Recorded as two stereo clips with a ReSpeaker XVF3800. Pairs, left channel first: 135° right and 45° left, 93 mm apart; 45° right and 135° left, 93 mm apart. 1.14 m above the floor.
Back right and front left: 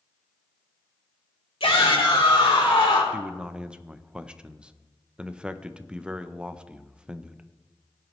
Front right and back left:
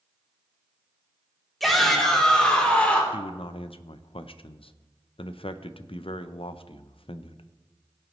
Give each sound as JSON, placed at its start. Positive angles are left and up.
{"t": 1.6, "sound": "a shout", "azimuth_deg": -135, "distance_m": 3.0}
{"t": 3.1, "sound": "a man speaking", "azimuth_deg": -35, "distance_m": 0.6}